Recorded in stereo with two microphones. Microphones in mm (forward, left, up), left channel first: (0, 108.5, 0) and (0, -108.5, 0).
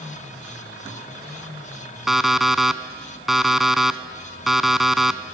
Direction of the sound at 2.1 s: Centre (ahead or behind).